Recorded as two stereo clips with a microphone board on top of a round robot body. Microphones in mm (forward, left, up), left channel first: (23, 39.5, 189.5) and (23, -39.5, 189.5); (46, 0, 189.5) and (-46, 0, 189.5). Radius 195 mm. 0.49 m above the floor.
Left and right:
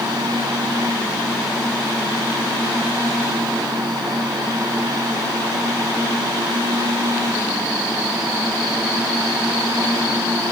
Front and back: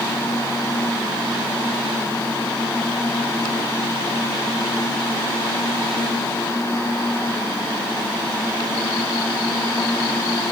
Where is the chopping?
I don't hear chopping.